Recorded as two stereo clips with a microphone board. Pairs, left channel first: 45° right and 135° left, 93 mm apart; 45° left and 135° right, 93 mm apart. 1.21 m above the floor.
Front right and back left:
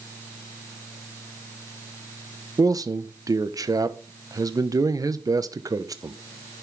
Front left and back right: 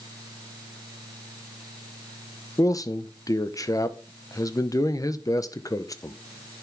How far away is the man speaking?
About 0.8 m.